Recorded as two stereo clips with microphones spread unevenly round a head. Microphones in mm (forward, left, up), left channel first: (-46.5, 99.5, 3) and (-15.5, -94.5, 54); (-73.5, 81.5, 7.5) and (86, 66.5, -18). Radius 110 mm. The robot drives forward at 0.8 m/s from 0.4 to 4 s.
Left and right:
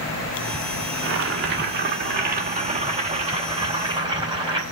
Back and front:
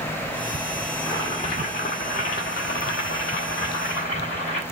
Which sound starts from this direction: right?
Boiling, at 1.0 s.